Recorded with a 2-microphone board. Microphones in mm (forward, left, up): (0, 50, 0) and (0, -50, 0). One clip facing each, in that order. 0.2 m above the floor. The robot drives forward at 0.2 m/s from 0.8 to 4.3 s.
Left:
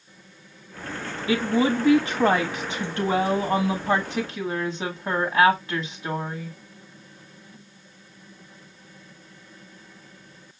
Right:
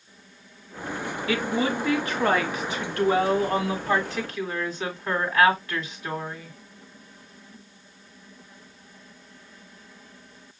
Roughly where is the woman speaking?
Left.